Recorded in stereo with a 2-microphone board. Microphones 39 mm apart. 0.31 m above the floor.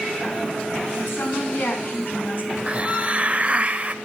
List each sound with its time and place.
0.9 s a woman speaking: 70° left (ahead or behind), 4 m; by 2.6 s 50° left (ahead or behind), 2.5 m
2.7 s a hiss: 30° right (ahead or behind), 0.5 m